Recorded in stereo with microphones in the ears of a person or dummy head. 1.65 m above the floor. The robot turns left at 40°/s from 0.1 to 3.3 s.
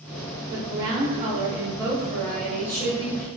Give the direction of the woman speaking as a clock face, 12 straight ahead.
4 o'clock.